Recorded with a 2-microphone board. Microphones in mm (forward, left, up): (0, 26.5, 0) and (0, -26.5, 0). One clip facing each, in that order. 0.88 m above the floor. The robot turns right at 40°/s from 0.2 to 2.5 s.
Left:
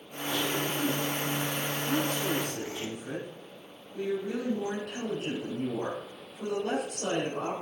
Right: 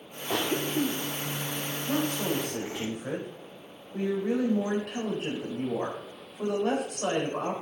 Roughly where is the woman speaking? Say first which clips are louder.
Right 2 dB; right.